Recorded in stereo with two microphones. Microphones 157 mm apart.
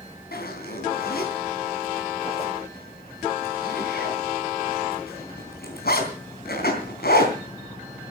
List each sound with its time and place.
0.3 s a zipper: 85° left, 3.5 m